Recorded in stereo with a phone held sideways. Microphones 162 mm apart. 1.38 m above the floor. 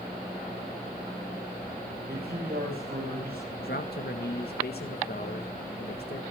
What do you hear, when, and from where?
2.1 s a man speaking: 80° right, 5.5 m
3.5 s a man speaking: 75° left (ahead or behind), 1.8 m